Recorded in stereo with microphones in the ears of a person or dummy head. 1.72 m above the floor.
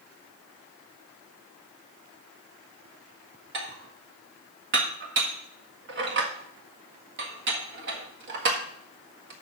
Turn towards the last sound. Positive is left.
turn(degrees=-55)  # may be behind; listen again after turning